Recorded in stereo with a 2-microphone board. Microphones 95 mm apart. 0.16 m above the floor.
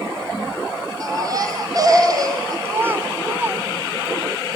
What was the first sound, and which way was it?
A baby crying, 40° right (ahead or behind).